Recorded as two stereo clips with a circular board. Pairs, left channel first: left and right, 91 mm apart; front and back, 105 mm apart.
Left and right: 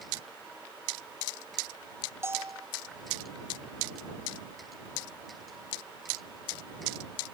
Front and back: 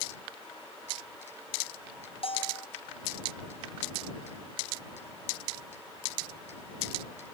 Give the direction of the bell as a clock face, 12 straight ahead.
1 o'clock.